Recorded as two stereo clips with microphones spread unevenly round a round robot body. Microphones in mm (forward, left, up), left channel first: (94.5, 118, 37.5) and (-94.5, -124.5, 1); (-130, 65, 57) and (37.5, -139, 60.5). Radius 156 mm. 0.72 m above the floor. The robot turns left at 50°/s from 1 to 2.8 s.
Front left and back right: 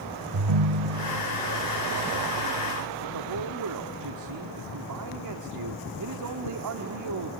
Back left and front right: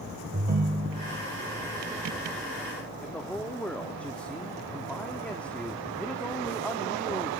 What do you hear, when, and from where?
0.3 s a ringtone: 110° right, 1.0 m; by 1.3 s 125° right, 1.0 m
3.0 s a man speaking: 145° right, 1.5 m